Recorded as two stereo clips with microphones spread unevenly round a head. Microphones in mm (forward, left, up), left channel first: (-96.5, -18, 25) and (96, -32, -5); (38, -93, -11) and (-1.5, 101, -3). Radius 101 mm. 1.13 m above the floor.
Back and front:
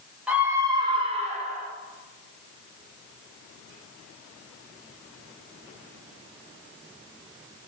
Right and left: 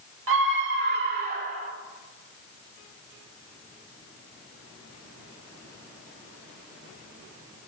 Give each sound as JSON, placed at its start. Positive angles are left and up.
{"t": 0.3, "sound": "a scream", "azimuth_deg": 80, "distance_m": 2.5}